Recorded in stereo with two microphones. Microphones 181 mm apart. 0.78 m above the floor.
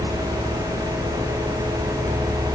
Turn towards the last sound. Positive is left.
No sound to turn to.